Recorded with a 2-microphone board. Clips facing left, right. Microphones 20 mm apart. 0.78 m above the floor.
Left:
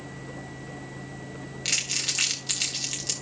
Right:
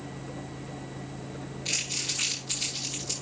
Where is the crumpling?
80° left, 3 m.